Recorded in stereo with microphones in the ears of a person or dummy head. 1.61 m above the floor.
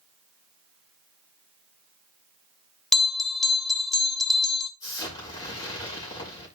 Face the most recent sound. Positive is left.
turn(degrees=20)  # may be behind; listen again after turning